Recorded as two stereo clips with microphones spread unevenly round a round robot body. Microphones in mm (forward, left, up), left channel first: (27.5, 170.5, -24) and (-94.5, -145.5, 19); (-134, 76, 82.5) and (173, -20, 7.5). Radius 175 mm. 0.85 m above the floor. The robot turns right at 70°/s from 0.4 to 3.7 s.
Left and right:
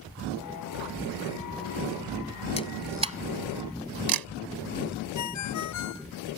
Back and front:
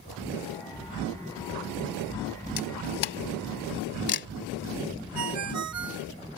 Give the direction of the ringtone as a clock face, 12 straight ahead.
11 o'clock.